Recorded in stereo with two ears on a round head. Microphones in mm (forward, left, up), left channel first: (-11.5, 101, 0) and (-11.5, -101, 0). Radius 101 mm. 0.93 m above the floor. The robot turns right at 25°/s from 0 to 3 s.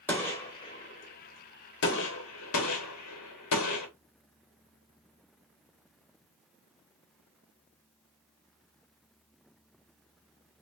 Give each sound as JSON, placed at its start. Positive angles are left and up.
{"t": 0.1, "sound": "a gunshot", "side_deg": 5, "distance_m": 1.2}